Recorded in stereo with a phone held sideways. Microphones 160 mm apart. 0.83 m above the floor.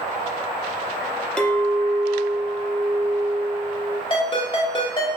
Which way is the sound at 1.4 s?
5° left (ahead or behind).